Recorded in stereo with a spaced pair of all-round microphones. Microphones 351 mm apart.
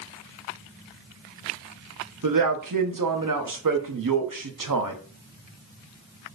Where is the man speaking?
65° right (ahead or behind), 0.6 m.